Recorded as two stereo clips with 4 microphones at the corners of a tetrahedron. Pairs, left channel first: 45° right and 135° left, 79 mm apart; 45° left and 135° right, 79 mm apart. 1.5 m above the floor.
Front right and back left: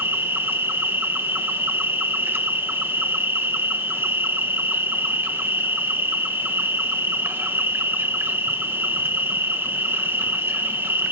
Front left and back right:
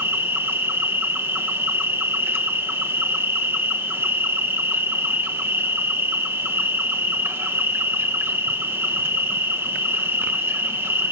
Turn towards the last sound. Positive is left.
turn(degrees=-175)